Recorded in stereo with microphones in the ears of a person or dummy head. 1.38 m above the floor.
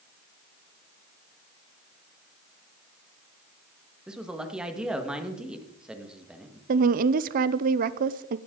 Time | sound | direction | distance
4.1 | a man speaking | 5° right (ahead or behind) | 1.7 m
6.7 | a woman speaking | 45° right (ahead or behind) | 0.6 m